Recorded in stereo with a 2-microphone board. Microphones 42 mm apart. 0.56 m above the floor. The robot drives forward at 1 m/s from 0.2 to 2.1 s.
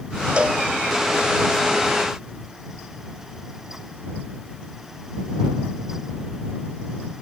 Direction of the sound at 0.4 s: 25° right (ahead or behind).